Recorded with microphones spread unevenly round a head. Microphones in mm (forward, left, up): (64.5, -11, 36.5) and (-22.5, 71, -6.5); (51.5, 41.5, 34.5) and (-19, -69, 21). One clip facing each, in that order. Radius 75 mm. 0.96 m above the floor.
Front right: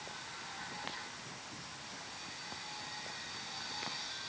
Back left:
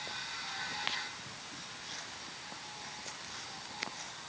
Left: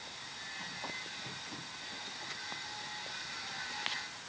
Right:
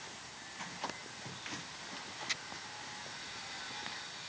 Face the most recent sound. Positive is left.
No sound to turn to.